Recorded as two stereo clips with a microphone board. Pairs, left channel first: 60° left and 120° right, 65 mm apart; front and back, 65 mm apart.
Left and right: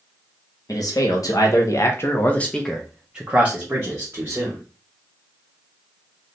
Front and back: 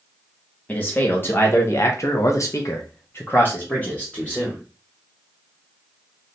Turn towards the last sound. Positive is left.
turn(degrees=-75)